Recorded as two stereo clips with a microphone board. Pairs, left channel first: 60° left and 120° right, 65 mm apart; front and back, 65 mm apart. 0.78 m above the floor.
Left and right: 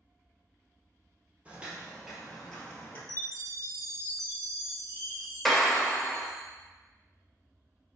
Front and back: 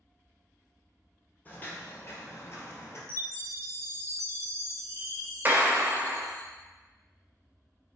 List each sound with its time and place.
1.4 s footsteps: 55° right, 1.1 m; by 3.0 s 5° left, 1.0 m
3.1 s a chime: 155° right, 0.9 m
5.5 s a clap: 145° left, 0.5 m